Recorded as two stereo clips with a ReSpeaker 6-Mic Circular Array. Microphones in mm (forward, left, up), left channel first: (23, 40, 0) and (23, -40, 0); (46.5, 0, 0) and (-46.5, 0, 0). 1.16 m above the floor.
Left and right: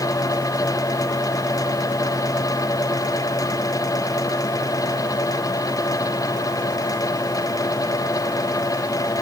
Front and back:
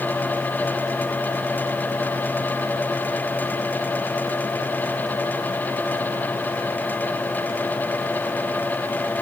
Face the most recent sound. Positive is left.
No sound to turn to.